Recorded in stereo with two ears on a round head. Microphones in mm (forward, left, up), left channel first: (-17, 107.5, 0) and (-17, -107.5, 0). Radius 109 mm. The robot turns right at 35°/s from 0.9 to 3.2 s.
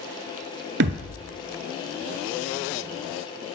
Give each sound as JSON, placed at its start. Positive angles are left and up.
{"t": 0.8, "sound": "a thud", "side_deg": -50, "distance_m": 0.6}